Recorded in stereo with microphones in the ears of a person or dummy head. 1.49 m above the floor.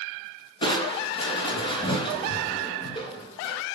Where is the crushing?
30° left (ahead or behind), 3.5 m.